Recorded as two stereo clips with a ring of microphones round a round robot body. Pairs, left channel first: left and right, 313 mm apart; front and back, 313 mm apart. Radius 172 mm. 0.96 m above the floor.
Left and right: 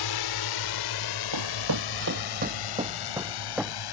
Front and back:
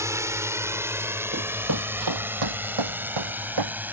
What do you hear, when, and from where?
0.0 s a drone: 100° left; by 3.9 s 95° left
1.3 s running footsteps: 120° right; by 3.8 s straight behind